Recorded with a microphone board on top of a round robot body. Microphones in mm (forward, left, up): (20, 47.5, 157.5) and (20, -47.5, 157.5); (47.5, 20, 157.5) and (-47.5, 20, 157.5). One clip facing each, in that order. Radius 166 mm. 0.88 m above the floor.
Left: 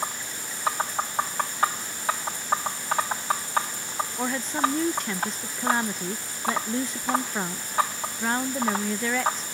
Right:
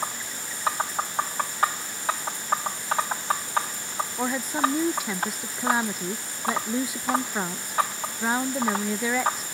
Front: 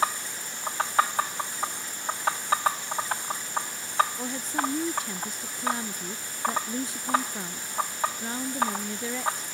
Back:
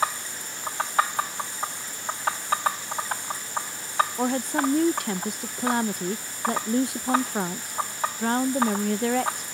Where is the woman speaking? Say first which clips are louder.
Right 1 dB, back 6 dB; 170° right.